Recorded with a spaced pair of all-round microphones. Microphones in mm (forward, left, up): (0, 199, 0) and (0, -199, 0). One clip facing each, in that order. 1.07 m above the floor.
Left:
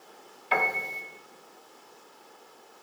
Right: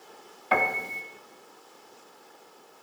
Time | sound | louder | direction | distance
0.5 | a piano | right 2 dB | 65° right (ahead or behind) | 1.6 m